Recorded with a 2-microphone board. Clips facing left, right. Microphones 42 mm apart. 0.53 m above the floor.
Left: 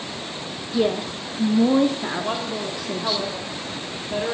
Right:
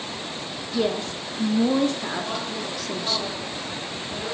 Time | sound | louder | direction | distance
0.7 | a woman speaking | left 3 dB | 10° left (ahead or behind) | 0.7 m
2.2 | a woman speaking | left 3 dB | 40° left (ahead or behind) | 2.5 m